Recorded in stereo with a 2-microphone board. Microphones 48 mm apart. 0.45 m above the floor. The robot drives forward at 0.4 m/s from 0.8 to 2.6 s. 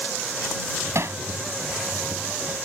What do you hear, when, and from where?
0.9 s hammering: 70° right (ahead or behind); by 1.2 s 65° right (ahead or behind)